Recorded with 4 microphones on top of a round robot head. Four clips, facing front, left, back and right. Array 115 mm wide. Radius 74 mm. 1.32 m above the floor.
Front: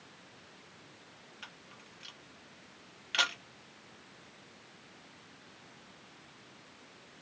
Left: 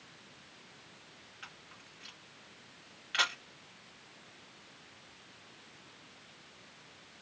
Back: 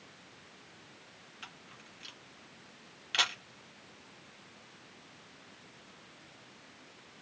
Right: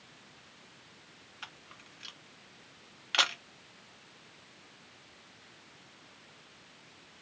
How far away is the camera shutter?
About 0.7 m.